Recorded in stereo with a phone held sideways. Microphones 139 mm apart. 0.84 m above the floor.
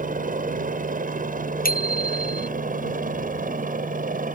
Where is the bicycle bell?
85° left.